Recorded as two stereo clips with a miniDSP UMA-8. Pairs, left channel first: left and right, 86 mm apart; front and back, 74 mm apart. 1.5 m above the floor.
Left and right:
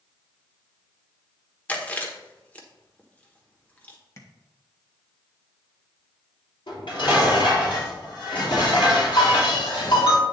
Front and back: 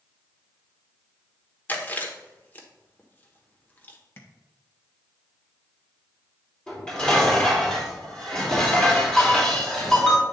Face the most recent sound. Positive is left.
turn(degrees=80)